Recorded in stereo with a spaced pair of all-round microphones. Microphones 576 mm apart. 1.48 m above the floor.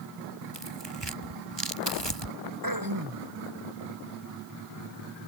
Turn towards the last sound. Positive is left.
turn(degrees=-35)  # may be behind; listen again after turning